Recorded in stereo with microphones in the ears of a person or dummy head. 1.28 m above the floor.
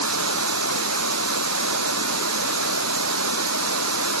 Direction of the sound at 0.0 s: 85° right.